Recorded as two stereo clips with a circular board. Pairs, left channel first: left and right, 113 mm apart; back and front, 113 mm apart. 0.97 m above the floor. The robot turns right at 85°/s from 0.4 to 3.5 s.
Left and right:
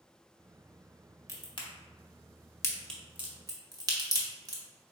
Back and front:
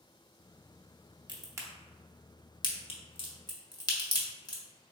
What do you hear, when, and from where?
1.3 s a crack: 35° left, 0.8 m; by 4.6 s 135° right, 0.8 m